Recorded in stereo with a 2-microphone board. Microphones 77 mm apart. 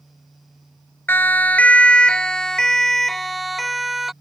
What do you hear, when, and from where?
1.1 s a siren: 25° left (ahead or behind); by 4.1 s 5° right (ahead or behind)